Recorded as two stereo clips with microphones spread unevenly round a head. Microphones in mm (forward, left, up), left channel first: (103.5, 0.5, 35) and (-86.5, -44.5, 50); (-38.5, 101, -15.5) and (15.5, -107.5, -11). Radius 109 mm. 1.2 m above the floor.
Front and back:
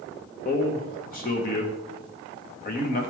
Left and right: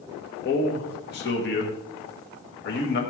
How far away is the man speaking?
About 1.4 m.